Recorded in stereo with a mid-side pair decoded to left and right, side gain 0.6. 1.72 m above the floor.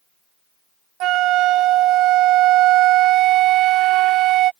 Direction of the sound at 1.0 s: 65° right.